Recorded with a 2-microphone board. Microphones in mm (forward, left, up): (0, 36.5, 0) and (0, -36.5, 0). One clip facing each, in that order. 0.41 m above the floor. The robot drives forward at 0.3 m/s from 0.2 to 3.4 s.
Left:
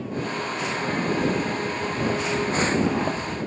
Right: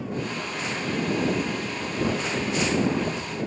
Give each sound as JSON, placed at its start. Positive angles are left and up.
{"t": 1.6, "sound": "footsteps", "side_deg": 20, "distance_m": 2.0}